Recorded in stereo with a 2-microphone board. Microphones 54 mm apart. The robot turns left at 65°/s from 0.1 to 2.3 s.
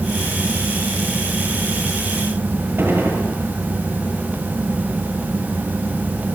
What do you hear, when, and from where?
2.8 s a gunshot: 40° right (ahead or behind), 7.5 m